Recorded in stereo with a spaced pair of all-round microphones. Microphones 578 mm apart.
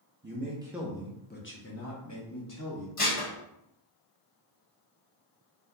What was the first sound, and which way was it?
A man speaking, 20° right (ahead or behind).